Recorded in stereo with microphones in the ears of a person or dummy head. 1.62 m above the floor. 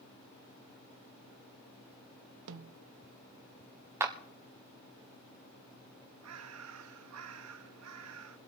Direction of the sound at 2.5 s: 65° right (ahead or behind).